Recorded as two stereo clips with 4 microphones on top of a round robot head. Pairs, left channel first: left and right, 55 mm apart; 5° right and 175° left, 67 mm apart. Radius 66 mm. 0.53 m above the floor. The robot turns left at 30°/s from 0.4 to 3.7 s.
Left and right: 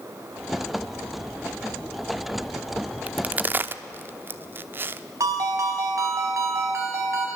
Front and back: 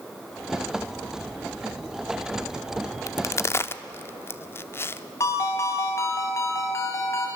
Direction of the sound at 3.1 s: 30° right.